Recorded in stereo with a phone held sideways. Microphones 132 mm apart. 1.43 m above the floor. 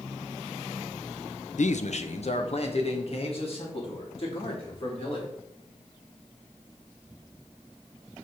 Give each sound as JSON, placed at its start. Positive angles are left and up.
{"t": 1.6, "sound": "a man speaking", "side_deg": 65, "distance_m": 0.5}